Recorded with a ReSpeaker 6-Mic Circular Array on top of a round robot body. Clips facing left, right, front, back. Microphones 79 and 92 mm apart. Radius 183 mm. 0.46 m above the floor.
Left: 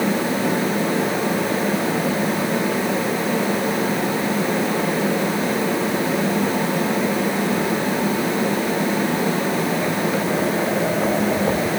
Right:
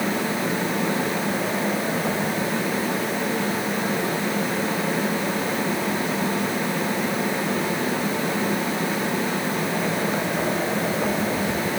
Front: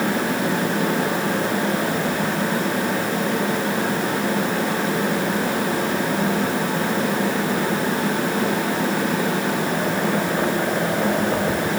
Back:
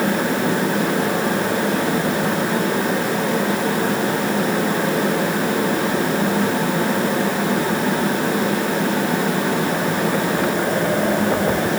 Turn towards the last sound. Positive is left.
No sound to turn to.